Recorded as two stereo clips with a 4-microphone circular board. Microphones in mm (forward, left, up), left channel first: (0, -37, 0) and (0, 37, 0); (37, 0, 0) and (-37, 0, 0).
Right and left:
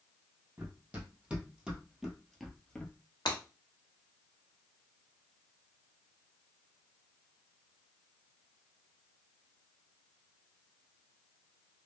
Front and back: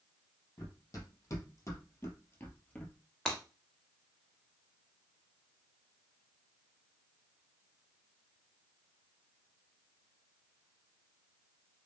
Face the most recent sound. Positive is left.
turn(degrees=-80)